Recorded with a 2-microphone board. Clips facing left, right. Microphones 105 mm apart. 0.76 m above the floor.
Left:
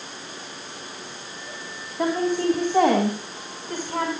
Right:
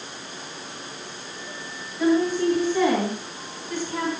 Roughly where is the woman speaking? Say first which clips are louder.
Right 2 dB; left.